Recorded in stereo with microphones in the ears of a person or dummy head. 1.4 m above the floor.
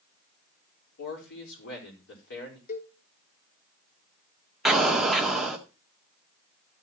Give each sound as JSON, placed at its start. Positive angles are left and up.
{"t": 1.0, "sound": "a man speaking", "side_deg": 70, "distance_m": 5.0}
{"t": 2.7, "sound": "a cowbell", "side_deg": 55, "distance_m": 1.4}
{"t": 4.7, "sound": "an explosion", "side_deg": 0, "distance_m": 1.9}